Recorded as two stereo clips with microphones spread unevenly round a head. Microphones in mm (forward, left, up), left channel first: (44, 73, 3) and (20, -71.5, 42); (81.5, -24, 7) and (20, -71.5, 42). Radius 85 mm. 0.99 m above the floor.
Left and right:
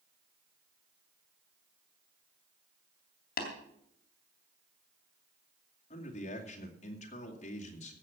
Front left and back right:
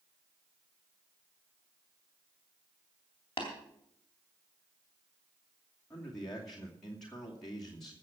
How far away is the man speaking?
About 2.5 m.